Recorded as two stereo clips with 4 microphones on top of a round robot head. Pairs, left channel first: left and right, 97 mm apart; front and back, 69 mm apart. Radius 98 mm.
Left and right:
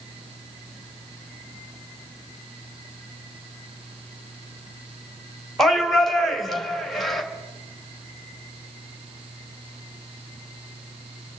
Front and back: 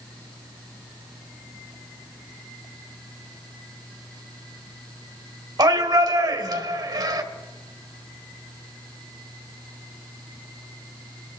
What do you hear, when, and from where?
5.6 s a shout: straight behind, 1.9 m